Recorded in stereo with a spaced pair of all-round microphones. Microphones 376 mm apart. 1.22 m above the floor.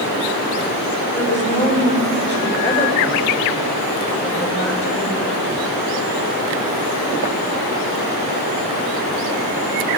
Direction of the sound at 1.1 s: 30° left (ahead or behind).